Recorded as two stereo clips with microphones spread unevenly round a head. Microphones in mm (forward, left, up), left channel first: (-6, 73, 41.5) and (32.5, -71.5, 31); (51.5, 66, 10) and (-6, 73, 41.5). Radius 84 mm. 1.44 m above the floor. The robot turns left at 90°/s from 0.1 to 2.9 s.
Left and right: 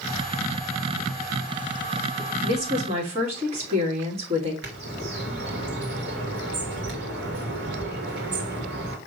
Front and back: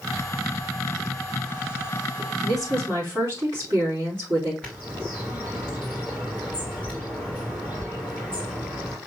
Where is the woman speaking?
85° right, 2.5 m; by 4.5 s 125° right, 2.5 m.